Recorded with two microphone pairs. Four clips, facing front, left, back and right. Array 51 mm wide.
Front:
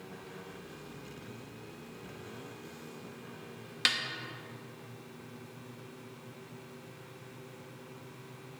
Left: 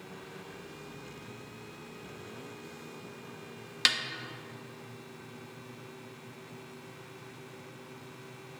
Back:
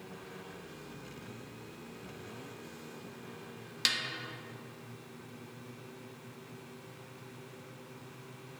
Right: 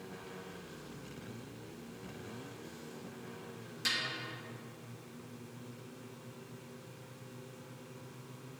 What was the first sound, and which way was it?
A snare drum, 60° left.